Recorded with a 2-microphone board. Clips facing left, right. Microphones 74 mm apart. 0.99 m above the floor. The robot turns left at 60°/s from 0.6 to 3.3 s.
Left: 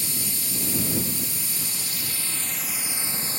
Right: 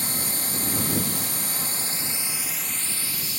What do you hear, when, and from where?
0.0 s a drone: 60° right; by 3.4 s 140° left